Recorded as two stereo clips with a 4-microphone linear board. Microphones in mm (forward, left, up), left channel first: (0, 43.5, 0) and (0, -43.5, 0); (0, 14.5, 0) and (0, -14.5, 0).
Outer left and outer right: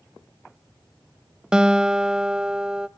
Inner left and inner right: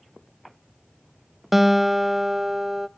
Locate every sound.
1.5 s a guitar: 10° right (ahead or behind), 0.6 m